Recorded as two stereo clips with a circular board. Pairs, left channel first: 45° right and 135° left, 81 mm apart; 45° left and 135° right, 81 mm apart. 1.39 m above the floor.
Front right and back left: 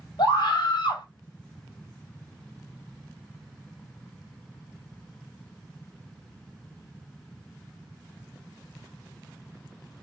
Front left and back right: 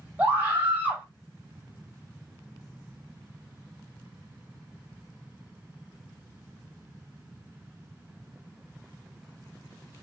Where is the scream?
70° right, 1.6 m.